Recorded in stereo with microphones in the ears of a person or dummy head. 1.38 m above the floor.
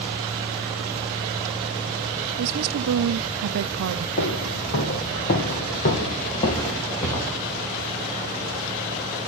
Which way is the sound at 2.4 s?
75° right (ahead or behind).